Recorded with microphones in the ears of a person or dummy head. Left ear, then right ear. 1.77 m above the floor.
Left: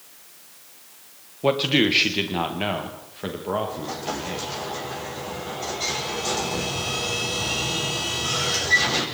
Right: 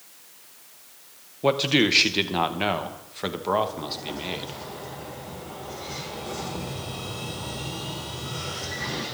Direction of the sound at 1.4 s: 5° right (ahead or behind).